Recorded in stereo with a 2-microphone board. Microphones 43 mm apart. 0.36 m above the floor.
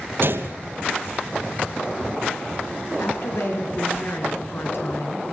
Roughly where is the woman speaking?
Left.